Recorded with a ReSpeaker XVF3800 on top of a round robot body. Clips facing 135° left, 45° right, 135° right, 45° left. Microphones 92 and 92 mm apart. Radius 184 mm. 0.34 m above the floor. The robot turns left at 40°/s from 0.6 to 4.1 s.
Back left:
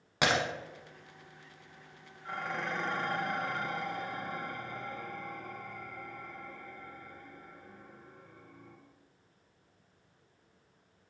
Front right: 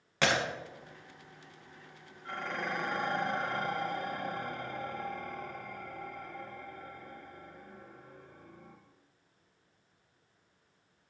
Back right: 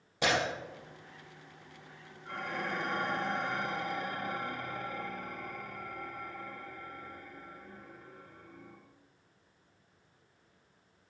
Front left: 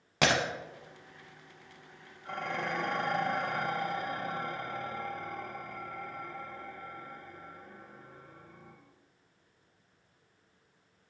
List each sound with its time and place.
0.2 s breaking glass: 60° left, 0.9 m
2.2 s dishes clattering: 60° left, 2 m; by 8.8 s 15° right, 2 m